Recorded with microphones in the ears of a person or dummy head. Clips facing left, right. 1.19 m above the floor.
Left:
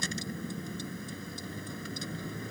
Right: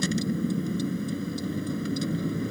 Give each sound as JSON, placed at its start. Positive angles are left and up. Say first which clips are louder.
{"t": 0.0, "sound": "a vehicle", "louder": "right 11 dB", "side_deg": -70}